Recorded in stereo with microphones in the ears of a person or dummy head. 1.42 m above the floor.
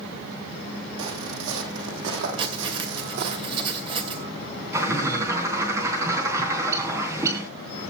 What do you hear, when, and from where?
1.0 s footsteps: 70° right (ahead or behind), 3.5 m; by 3.4 s 60° right (ahead or behind), 2.5 m
2.4 s writing: 30° right (ahead or behind), 2.5 m
4.7 s a bird: 15° right (ahead or behind), 3.5 m